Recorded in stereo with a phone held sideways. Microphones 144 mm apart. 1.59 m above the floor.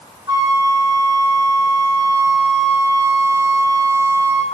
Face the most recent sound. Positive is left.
turn(degrees=-30)  # may be behind; listen again after turning